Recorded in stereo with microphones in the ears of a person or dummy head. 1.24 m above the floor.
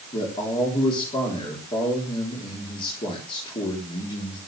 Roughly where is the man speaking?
Left.